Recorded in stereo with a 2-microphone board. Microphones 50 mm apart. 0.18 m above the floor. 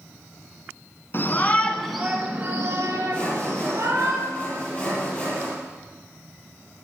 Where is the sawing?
15° left (ahead or behind), 4.5 m.